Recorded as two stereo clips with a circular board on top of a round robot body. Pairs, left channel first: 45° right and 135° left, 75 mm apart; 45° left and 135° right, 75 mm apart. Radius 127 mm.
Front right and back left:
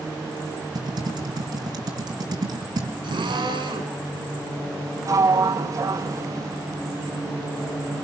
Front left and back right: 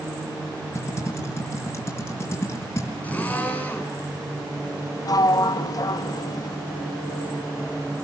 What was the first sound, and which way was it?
Typing on a keyboard, 105° left.